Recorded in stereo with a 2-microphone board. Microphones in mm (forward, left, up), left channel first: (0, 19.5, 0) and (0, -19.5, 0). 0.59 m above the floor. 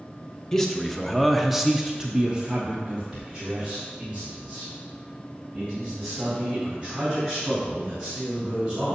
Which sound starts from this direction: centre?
A man speaking, at 0.5 s.